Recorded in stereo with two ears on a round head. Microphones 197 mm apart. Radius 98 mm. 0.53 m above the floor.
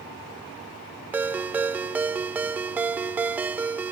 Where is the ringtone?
10° right (ahead or behind).